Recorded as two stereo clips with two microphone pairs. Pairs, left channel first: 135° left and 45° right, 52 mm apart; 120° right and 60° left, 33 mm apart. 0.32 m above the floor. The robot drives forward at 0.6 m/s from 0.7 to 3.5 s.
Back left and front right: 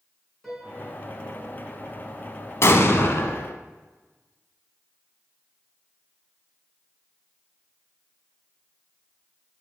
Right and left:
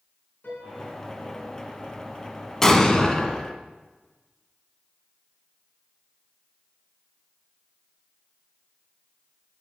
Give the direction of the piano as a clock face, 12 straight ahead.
5 o'clock.